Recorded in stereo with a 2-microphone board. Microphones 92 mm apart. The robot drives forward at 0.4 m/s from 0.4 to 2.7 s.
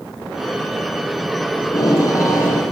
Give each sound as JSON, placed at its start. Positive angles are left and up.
{"t": 1.6, "sound": "tape being pulled", "side_deg": 40, "distance_m": 8.5}